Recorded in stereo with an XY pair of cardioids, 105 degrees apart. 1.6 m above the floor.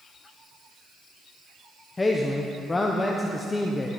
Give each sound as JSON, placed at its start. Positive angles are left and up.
{"t": 2.0, "sound": "a man speaking", "azimuth_deg": 20, "distance_m": 0.9}